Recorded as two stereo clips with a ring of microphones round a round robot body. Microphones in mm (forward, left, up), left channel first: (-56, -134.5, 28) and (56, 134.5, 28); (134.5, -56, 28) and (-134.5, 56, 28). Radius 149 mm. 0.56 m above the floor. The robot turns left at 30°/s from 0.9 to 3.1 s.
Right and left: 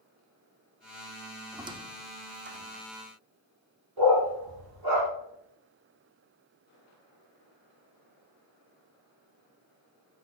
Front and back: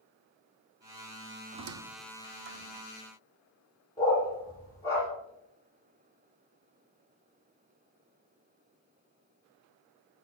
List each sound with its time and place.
1.5 s a squeak: 145° left, 0.7 m; by 2.8 s 105° left, 0.7 m
4.0 s a dog barking: 55° left, 5 m